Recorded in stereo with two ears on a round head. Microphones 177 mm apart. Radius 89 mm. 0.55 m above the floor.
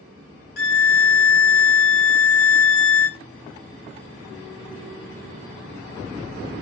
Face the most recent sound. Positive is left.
turn(degrees=50)  # may be behind; listen again after turning